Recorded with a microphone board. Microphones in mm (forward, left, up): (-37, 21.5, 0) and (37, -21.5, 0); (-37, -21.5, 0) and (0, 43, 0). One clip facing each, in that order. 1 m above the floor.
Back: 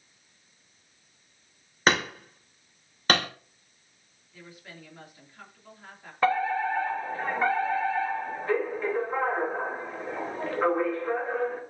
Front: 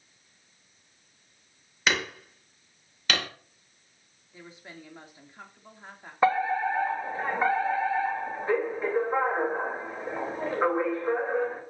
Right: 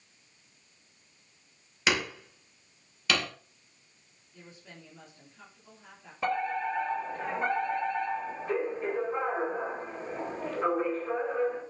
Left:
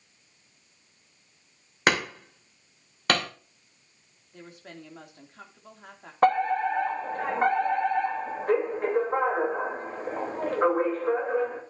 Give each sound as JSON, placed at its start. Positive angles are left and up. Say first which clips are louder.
{"t": 1.9, "sound": "hammering", "louder": "back 4 dB, left 4 dB", "azimuth_deg": 100, "distance_m": 2.5}
{"t": 4.3, "sound": "a woman speaking", "louder": "front 1 dB, left 6 dB", "azimuth_deg": 35, "distance_m": 3.0}
{"t": 6.2, "sound": "a fire alarm", "louder": "front 1 dB, left 8 dB", "azimuth_deg": 40, "distance_m": 3.0}